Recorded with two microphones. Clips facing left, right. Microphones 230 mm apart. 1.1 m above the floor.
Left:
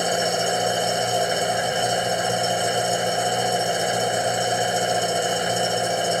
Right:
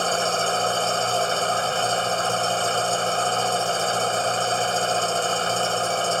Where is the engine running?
15° left (ahead or behind).